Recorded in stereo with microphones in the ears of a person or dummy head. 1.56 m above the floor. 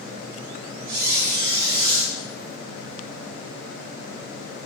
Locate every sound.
0.9 s a squeak: 55° right (ahead or behind), 2.5 m